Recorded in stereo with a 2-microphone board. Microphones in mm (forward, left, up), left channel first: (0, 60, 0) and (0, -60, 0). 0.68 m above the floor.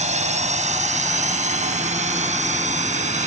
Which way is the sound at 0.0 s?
80° right.